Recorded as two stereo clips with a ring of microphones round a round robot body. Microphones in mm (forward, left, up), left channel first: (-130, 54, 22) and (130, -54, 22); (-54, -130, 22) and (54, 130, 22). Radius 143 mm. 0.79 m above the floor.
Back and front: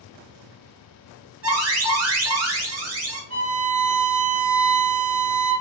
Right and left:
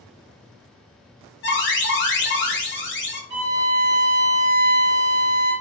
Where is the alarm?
60° right, 0.8 m.